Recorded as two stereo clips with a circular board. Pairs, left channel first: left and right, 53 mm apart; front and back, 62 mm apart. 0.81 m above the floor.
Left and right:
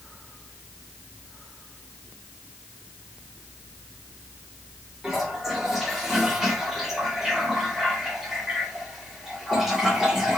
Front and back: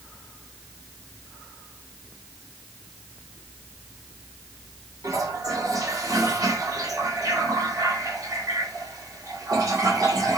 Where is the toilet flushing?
170° right, 2.5 m.